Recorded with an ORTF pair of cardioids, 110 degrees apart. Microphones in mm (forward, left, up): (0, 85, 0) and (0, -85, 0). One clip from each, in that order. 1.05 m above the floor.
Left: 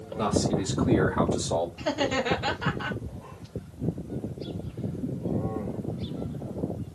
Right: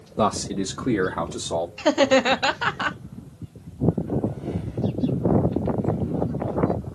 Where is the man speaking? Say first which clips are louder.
Right 4 dB; 60° right, 0.7 m; by 1.7 s 15° right, 1.1 m.